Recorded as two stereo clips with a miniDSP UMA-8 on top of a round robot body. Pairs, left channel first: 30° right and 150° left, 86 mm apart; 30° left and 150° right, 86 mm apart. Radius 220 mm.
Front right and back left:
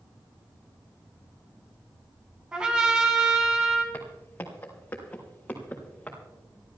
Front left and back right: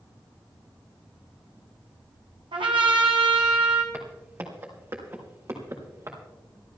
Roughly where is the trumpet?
Behind right.